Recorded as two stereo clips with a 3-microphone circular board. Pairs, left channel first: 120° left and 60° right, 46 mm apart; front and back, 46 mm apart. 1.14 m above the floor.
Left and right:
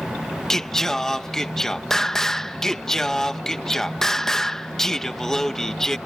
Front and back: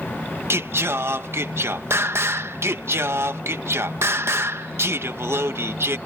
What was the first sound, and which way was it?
Singing, 160° right.